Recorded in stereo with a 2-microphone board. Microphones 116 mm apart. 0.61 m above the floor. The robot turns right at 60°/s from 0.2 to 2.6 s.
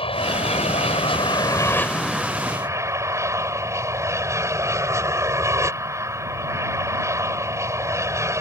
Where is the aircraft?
65° left; by 8.4 s 150° right.